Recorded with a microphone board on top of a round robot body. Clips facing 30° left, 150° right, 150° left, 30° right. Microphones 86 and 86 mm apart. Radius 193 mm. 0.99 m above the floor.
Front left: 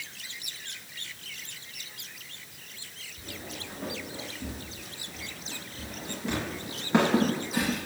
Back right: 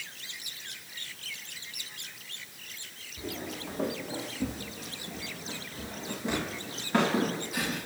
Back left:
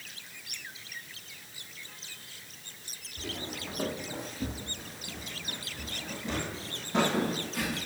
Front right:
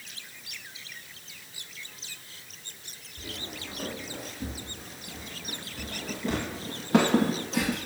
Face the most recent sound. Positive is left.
turn(degrees=-30)